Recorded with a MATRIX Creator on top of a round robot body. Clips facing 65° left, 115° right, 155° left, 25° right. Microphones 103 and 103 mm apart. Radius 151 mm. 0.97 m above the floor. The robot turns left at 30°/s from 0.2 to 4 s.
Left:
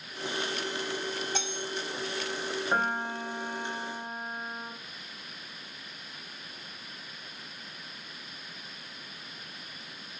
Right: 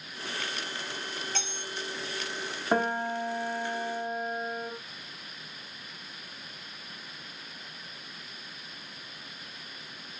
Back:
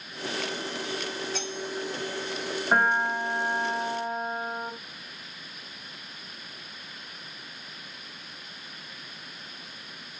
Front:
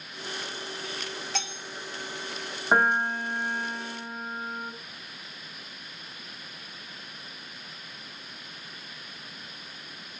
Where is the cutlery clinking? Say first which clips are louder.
Left 3 dB, back 2 dB; 5° right, 0.9 m; by 1.6 s 15° right, 0.9 m.